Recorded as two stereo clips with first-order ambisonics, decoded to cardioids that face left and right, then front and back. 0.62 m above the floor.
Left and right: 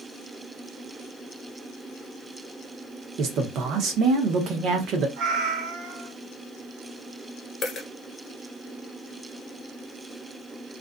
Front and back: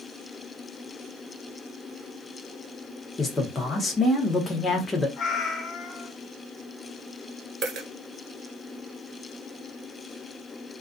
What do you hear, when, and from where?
3.2 s a man speaking: 70° right, 0.8 m
5.2 s a cat meowing: 60° right, 0.7 m
7.6 s a dropped coin: 150° left, 0.8 m